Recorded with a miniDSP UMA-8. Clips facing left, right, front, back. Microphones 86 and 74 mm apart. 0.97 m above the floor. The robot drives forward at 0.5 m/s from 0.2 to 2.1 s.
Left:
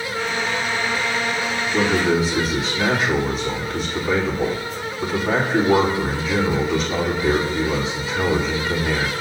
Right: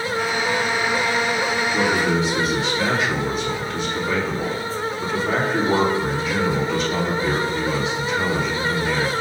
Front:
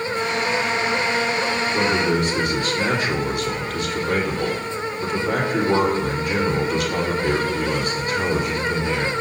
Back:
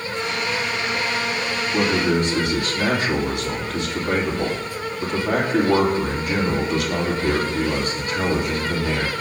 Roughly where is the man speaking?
Behind.